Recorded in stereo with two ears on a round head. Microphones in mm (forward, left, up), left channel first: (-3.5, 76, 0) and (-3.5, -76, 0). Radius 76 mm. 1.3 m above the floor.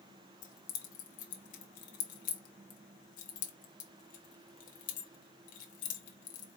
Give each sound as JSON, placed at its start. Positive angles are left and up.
{"t": 0.4, "sound": "keys jangling", "side_deg": 50, "distance_m": 0.8}